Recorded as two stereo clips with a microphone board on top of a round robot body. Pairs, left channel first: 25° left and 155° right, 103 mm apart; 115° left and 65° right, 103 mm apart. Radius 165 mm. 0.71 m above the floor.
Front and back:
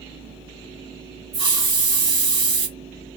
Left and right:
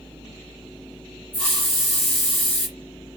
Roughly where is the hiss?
Behind.